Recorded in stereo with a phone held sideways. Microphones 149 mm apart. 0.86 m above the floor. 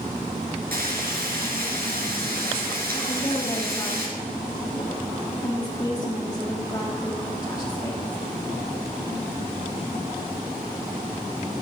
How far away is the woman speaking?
About 2.0 m.